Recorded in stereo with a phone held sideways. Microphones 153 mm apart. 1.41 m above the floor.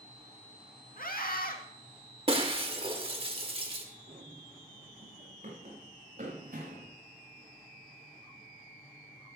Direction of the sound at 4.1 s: 50° right (ahead or behind).